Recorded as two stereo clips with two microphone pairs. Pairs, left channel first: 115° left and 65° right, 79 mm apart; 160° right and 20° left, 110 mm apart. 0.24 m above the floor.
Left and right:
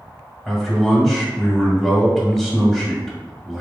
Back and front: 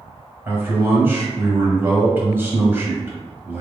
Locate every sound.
0.5 s a man speaking: 30° left, 1.4 m